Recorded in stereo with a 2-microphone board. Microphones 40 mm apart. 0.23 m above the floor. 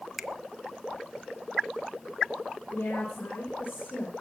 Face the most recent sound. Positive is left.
turn(degrees=55)  # may be behind; listen again after turning